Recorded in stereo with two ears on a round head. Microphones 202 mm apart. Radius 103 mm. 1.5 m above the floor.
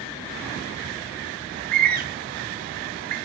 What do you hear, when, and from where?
1.5 s a bird: 40° right (ahead or behind), 0.8 m